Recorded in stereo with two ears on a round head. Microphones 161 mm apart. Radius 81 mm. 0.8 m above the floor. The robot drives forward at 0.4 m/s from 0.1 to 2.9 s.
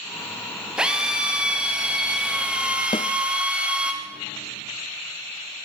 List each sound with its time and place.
0.8 s a drill: 5° right (ahead or behind), 4 m
2.9 s a snare drum: 25° left (ahead or behind), 1.2 m